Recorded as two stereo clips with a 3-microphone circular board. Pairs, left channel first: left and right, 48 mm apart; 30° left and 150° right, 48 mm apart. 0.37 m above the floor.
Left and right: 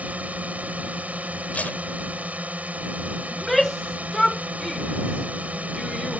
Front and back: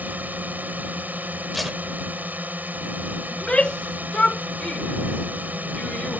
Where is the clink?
No clink in this recording.